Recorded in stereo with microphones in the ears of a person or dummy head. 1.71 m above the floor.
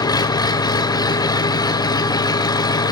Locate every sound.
0.0 s an engine running: 20° left (ahead or behind), 0.7 m